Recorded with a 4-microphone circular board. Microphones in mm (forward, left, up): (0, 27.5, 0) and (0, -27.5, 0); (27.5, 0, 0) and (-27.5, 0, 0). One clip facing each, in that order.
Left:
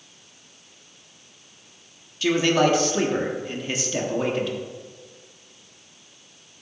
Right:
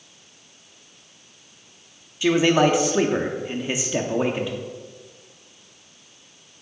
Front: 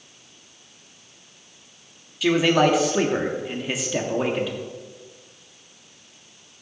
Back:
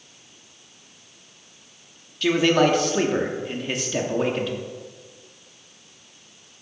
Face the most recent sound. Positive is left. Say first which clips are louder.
# right 2 dB, even
turn(degrees=-75)